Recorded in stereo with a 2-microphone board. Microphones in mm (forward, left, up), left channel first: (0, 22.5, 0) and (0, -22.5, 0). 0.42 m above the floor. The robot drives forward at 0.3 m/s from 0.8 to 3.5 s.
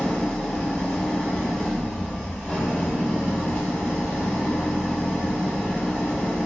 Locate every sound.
0.0 s an engine running: 15° left (ahead or behind), 0.8 m; by 6.5 s 10° left (ahead or behind), 1.6 m